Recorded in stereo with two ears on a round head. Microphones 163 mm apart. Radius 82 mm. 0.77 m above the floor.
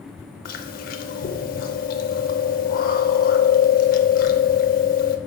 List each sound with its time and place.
0.5 s chewing: 50° left (ahead or behind), 0.6 m